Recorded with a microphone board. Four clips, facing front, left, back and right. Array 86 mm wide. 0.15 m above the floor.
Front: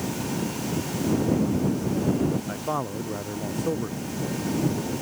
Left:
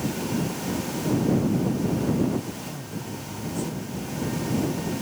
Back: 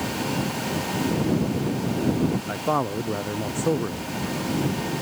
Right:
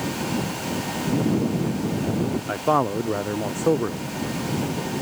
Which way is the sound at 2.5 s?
105° right.